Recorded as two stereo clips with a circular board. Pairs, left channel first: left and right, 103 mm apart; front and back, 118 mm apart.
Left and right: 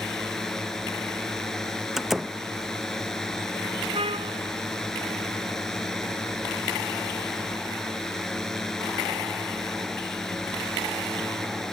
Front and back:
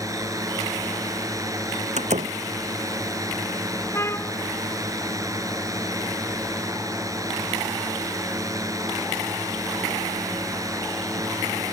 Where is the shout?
I don't hear a shout.